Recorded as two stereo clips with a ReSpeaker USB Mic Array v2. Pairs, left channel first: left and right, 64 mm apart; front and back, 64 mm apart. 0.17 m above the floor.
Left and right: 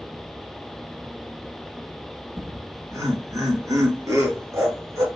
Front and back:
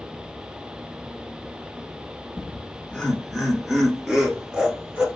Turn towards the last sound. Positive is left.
turn(degrees=-115)